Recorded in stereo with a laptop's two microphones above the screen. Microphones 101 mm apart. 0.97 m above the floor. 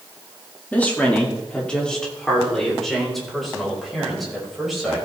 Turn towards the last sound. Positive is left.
turn(degrees=0)  # may be behind; listen again after turning